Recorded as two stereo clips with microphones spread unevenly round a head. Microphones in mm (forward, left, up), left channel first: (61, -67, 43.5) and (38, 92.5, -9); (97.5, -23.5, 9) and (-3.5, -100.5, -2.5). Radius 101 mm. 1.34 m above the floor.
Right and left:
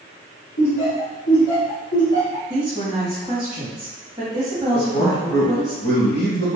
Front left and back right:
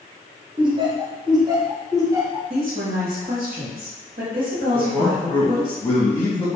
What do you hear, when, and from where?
0.6 s laughter: 90° right, 1.2 m; by 2.4 s 80° right, 2 m
2.5 s a woman speaking: 170° right, 0.9 m
4.7 s a man speaking: 35° right, 1.4 m